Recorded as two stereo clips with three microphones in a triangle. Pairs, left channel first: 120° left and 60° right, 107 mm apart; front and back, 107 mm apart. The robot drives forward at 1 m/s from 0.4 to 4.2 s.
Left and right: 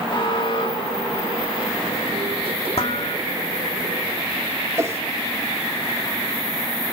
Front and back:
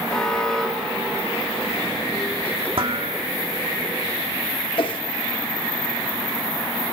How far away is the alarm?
About 4.5 m.